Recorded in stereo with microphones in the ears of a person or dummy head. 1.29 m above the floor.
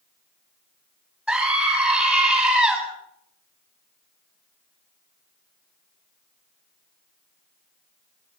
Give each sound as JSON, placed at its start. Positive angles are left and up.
{"t": 1.3, "sound": "a scream", "side_deg": 5, "distance_m": 8.5}